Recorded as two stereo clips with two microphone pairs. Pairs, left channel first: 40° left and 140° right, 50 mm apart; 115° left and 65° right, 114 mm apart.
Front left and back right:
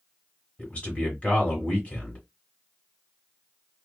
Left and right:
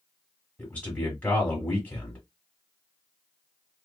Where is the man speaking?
55° left, 1.5 m.